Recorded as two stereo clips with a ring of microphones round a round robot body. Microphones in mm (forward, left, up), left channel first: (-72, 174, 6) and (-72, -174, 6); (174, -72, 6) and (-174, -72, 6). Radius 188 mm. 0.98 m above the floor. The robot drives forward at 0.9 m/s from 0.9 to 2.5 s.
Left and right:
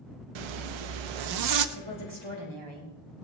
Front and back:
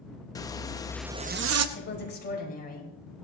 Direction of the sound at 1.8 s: 60° right.